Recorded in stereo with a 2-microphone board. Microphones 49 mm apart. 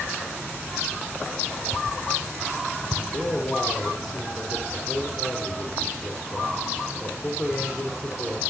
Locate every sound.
3.1 s a man speaking: 5° left (ahead or behind), 2.5 m